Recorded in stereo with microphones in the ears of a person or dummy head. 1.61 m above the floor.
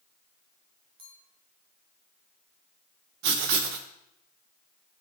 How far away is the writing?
About 0.8 m.